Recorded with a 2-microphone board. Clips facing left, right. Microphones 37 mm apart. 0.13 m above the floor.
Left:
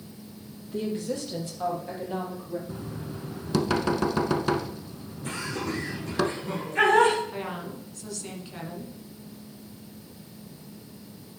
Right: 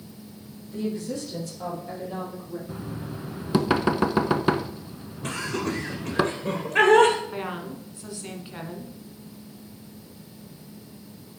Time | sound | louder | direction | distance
0.7 | a woman speaking | even | 40° left (ahead or behind) | 4 m
2.7 | knocking | right 2 dB | 20° right (ahead or behind) | 0.8 m
5.2 | laughter | right 3 dB | 65° right (ahead or behind) | 2.5 m
7.3 | a woman speaking | right 2 dB | 20° right (ahead or behind) | 1.6 m